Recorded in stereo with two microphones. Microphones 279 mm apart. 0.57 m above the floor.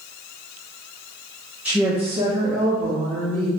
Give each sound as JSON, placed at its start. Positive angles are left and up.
{"t": 1.6, "sound": "a woman speaking", "side_deg": -5, "distance_m": 0.9}